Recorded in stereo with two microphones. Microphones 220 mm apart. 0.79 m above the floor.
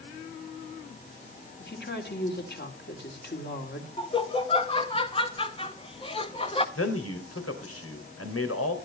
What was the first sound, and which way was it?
A woman speaking, 45° left (ahead or behind).